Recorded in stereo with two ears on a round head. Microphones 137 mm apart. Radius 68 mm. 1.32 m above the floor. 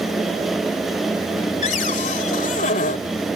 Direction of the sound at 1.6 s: 50° left (ahead or behind).